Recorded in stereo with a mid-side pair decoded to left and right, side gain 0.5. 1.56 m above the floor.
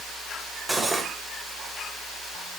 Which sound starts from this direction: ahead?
Cutlery clinking, at 0.7 s.